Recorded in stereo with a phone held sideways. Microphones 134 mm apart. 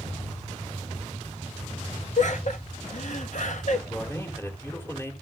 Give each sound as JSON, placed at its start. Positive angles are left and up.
{"t": 2.2, "sound": "laughter", "side_deg": 65, "distance_m": 1.6}
{"t": 3.9, "sound": "a man speaking", "side_deg": 20, "distance_m": 3.5}